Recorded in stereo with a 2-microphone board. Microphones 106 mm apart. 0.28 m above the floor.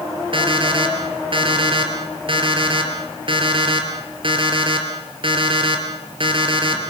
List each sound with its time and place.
0.3 s an alarm clock: 55° right (ahead or behind), 3.5 m